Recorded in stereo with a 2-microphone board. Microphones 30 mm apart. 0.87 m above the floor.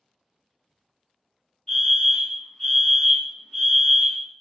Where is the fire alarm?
25° left (ahead or behind), 1.7 m.